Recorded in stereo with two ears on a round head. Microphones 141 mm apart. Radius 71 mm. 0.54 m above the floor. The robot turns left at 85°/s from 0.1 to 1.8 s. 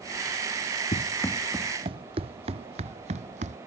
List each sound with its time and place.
0.9 s running footsteps: 45° left (ahead or behind); by 3.6 s 50° right (ahead or behind)